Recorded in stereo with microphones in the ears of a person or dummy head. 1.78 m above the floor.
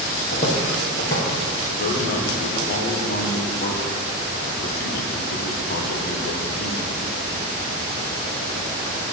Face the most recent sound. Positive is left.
turn(degrees=50)  # may be behind; listen again after turning